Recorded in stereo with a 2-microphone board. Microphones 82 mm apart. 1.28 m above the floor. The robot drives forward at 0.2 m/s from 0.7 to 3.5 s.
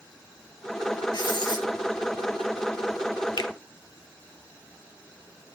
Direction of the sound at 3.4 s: 70° left (ahead or behind).